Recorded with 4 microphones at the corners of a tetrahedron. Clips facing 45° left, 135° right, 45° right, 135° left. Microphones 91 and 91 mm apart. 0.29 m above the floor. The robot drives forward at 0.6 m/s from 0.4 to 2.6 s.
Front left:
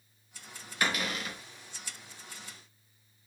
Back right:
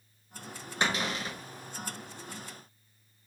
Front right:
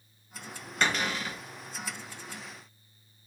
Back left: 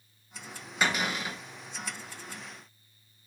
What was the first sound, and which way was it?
A cupboard door, 155° right.